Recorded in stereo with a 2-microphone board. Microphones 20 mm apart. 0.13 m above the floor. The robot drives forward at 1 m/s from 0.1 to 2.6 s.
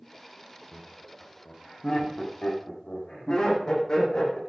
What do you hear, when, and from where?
0.7 s laughter: 50° left (ahead or behind), 5 m; by 4.4 s 35° left (ahead or behind), 6 m